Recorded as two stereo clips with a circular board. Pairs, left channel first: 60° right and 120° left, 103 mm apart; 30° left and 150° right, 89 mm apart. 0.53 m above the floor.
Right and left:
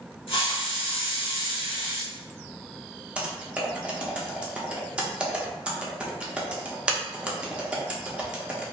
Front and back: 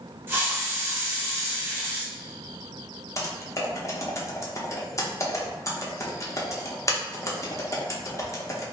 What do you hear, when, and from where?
0.3 s a hiss: 85° right, 1.0 m
3.2 s typing on a keyboard: 50° left, 0.5 m